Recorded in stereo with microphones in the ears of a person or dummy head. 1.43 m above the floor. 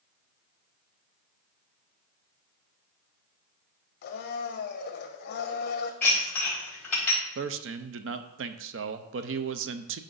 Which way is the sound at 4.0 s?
55° left (ahead or behind).